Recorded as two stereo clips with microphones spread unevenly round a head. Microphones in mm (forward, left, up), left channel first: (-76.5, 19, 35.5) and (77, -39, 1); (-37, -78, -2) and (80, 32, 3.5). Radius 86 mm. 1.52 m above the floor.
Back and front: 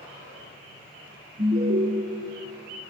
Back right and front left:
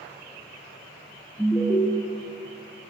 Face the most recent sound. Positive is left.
turn(degrees=-65)